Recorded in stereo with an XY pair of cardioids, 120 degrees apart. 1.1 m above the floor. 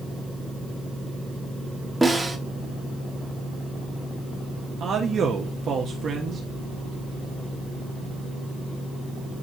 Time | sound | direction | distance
2.0 | a snare drum | 10° right | 1.6 m
4.8 | a man speaking | 45° right | 1.3 m